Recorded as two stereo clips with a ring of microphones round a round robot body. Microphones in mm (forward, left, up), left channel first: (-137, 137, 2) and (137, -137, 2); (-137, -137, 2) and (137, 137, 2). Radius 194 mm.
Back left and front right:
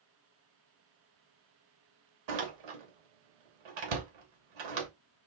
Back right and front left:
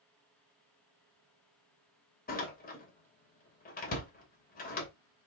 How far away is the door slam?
About 2.5 m.